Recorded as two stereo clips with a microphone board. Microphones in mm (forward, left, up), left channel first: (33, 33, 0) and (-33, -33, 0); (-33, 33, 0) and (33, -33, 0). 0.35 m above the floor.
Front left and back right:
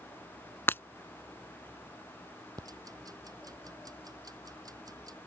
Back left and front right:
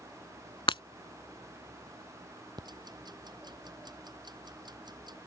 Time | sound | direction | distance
0.7 | breaking glass | 110° left | ?
2.6 | ticking | 85° right | ?